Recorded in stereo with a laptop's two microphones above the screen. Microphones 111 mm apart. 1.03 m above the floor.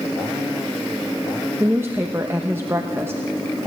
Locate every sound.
1.6 s a woman speaking: 20° right (ahead or behind), 1.1 m